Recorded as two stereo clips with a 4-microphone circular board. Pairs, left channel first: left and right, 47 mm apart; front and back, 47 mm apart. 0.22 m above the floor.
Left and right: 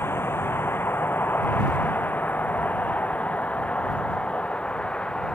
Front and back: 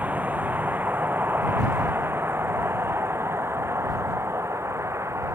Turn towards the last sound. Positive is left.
turn(degrees=160)